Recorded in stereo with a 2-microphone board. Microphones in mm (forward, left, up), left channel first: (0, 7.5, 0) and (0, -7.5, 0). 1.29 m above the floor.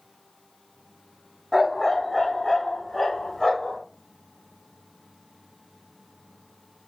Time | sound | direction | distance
1.5 | a dog barking | centre (ahead or behind) | 1.7 m